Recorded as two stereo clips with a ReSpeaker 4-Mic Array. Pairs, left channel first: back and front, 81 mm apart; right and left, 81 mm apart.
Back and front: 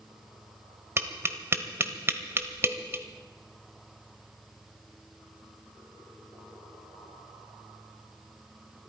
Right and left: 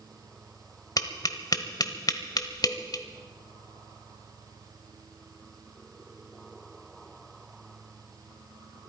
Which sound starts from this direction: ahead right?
Tapping, at 1.0 s.